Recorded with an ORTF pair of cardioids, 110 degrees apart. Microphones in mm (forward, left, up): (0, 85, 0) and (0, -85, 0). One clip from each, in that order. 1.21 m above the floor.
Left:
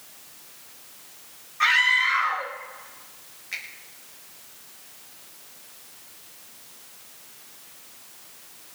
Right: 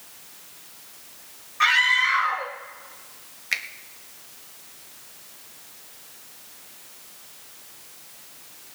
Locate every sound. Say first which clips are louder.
1.6 s a scream: right 1 dB; 15° right, 3 m
3.5 s a finger snap: right 7 dB; 60° right, 1.4 m